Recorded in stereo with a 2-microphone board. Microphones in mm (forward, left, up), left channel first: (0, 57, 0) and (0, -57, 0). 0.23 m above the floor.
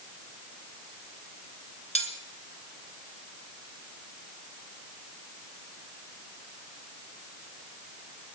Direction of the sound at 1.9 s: 70° left (ahead or behind).